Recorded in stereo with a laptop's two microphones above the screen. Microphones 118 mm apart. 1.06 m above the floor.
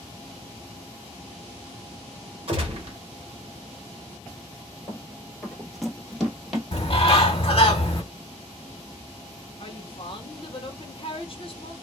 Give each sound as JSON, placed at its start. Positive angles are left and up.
{"t": 2.5, "sound": "a gunshot", "side_deg": -55, "distance_m": 1.2}
{"t": 4.9, "sound": "running footsteps", "side_deg": 5, "distance_m": 1.4}
{"t": 6.7, "sound": "a bird", "side_deg": 50, "distance_m": 1.2}
{"t": 9.6, "sound": "a woman speaking", "side_deg": 50, "distance_m": 0.9}